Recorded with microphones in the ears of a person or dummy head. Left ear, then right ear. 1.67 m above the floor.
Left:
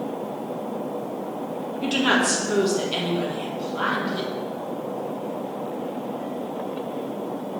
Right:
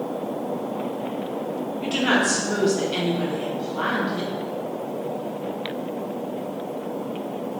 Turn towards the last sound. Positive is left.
turn(degrees=15)  # may be behind; listen again after turning